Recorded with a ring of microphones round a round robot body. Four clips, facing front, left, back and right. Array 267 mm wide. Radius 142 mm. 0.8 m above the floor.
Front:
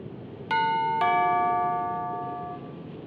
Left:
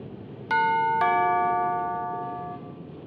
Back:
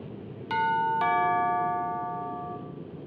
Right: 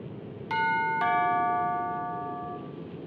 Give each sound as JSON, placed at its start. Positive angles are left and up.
{"t": 0.5, "sound": "a doorbell", "azimuth_deg": 55, "distance_m": 0.9}